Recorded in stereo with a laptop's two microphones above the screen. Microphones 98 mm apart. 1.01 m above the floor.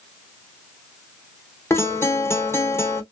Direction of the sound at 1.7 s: 30° left (ahead or behind).